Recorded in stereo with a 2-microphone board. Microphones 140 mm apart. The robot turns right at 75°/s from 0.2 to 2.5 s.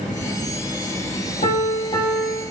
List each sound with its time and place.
1.4 s a piano: 100° left, 3 m; by 2.4 s 175° left, 3 m